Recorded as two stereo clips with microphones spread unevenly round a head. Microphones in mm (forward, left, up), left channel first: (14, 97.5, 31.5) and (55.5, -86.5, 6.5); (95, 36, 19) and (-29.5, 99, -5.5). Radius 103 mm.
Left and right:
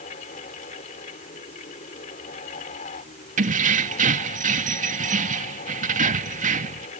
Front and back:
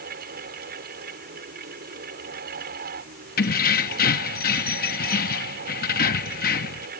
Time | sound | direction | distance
0.0 | a fan | 160° left | ?
3.4 | keys jangling | 25° right | ?